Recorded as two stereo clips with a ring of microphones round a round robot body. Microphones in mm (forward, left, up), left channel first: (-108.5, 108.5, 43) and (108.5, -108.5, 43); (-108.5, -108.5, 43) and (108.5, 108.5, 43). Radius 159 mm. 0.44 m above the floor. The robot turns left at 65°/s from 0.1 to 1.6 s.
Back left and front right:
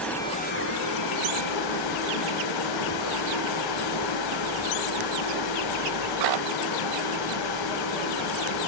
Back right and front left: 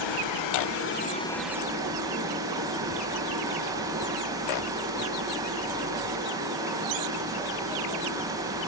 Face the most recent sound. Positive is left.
turn(degrees=125)